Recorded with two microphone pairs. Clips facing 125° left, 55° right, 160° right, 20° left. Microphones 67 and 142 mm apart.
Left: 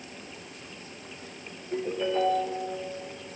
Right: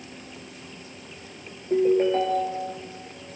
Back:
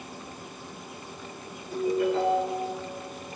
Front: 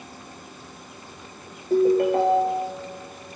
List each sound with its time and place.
1.7 s a ringtone: 10° right, 3.5 m